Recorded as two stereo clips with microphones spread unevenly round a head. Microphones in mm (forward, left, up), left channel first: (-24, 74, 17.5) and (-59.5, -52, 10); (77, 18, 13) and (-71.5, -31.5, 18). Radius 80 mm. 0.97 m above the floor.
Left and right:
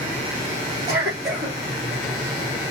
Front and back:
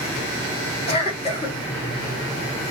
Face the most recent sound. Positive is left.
turn(degrees=-35)